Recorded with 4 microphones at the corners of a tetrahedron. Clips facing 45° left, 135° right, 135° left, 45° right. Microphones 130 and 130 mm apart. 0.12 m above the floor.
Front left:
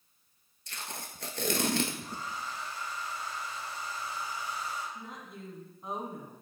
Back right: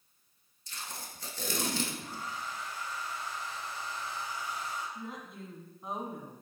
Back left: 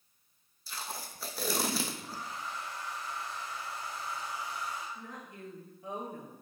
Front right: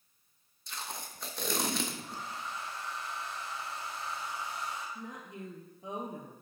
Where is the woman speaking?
50° right, 1.2 m.